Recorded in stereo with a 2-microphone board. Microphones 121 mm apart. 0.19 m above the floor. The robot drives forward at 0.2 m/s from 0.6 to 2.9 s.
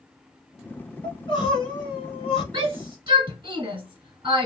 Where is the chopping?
I don't hear chopping.